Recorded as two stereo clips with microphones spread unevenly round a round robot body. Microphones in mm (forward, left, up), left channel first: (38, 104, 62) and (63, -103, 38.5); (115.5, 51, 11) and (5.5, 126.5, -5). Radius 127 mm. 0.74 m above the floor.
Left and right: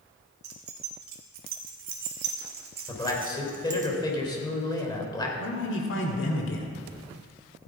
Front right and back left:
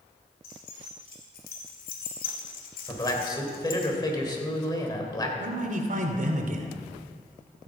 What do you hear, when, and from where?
0.4 s keys jangling: 90° right, 1.6 m; by 3.9 s 30° right, 2.5 m
2.9 s a man speaking: 25° left, 3 m
5.4 s a man speaking: 135° left, 2.0 m